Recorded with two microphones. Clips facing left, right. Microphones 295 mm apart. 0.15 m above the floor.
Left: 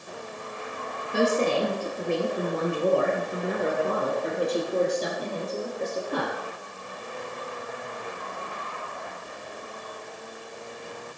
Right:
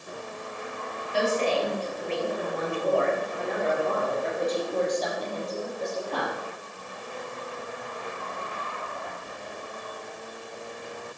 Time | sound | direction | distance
1.1 | a woman speaking | 60° left (ahead or behind) | 3.5 m